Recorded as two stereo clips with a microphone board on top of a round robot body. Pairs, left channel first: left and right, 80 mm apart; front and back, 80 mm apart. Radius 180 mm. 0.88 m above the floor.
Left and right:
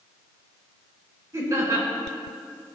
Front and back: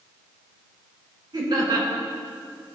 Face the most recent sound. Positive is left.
turn(degrees=-145)